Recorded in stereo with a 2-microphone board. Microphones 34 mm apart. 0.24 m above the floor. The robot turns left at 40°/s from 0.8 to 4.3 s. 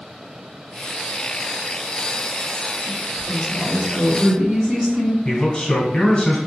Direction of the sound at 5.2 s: 25° left (ahead or behind).